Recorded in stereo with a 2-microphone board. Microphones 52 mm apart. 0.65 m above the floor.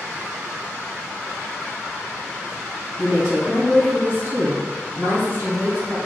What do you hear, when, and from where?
3.0 s a woman speaking: 60° right (ahead or behind), 1.4 m